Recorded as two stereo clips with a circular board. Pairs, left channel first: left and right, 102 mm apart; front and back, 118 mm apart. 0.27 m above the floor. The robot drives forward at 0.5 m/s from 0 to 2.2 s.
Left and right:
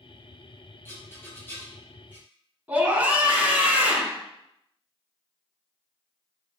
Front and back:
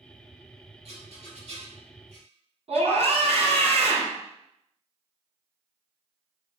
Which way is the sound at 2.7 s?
160° right.